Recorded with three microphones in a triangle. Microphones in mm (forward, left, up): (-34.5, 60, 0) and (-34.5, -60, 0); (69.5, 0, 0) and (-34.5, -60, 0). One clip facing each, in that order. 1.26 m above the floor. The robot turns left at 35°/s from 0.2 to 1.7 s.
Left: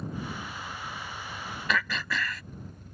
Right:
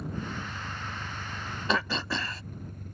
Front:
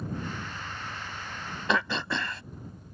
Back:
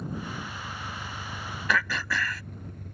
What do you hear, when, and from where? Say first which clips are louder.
0.0 s an engine running: even, even; 75° right; by 2.9 s 125° right
1.7 s throat clearing: right 2 dB, front 1 dB; 35° right